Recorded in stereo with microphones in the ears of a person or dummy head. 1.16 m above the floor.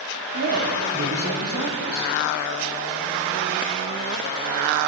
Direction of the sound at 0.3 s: 65° right (ahead or behind).